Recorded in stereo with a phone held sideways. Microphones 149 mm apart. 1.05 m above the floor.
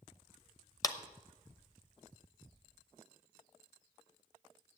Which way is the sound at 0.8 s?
25° left (ahead or behind).